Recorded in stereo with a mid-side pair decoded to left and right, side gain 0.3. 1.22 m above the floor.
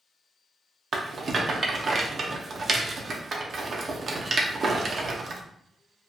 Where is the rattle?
55° right, 0.6 m.